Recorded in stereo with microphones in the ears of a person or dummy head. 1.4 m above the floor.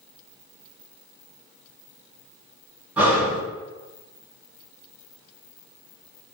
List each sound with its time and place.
3.0 s breathing: 10° right (ahead or behind), 1.5 m